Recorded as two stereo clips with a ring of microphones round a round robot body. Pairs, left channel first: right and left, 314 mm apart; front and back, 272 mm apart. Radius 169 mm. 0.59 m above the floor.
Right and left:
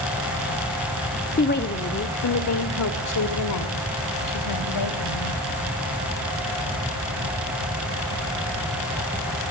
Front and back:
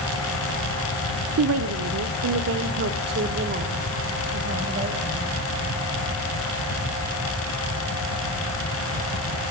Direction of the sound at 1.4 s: 150° right.